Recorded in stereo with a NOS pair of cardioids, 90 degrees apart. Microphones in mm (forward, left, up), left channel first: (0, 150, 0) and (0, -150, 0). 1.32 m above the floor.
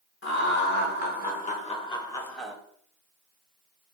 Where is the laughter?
40° left, 1.8 m; by 2.5 s 5° right, 0.9 m.